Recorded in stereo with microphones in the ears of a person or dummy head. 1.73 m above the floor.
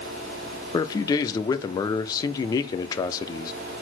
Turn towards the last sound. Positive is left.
turn(degrees=20)  # may be behind; listen again after turning